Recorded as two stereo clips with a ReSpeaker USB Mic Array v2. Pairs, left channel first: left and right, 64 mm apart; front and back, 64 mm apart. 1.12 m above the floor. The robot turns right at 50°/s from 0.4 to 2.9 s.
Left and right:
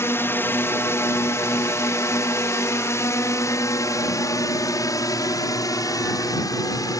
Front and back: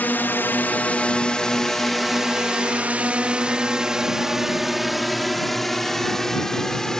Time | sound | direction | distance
0.0 | a drone | 55° left | ?